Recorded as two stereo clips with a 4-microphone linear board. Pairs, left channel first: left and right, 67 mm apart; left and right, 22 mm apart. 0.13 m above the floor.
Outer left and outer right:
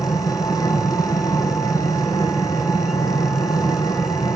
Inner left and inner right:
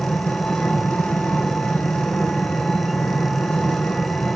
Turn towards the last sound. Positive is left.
turn(degrees=60)  # may be behind; listen again after turning